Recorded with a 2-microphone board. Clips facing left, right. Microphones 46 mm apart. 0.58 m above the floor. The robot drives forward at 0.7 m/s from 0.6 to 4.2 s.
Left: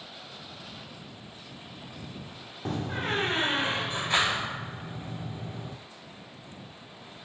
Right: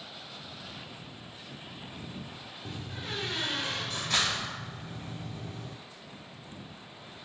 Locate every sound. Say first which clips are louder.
2.6 s a door slam: left 10 dB; 55° left (ahead or behind), 0.6 m; by 5.8 s 20° left (ahead or behind), 1.5 m